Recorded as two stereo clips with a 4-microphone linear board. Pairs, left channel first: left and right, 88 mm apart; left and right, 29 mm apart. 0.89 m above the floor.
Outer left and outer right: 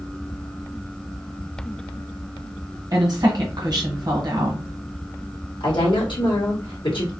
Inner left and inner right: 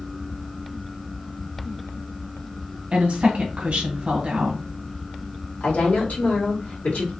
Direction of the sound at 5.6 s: 70° left (ahead or behind).